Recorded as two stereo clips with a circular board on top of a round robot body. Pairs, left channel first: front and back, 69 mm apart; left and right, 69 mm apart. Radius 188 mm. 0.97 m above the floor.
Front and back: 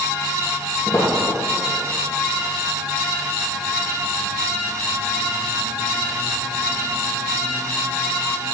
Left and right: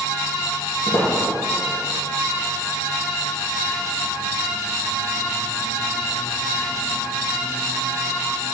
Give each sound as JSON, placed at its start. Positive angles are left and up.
{"t": 0.9, "sound": "footsteps", "azimuth_deg": 50, "distance_m": 1.3}